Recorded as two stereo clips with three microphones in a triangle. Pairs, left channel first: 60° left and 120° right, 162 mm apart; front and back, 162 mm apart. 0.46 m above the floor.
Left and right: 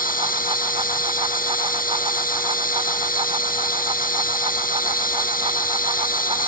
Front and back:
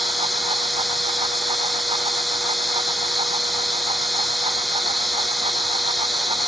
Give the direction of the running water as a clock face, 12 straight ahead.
9 o'clock.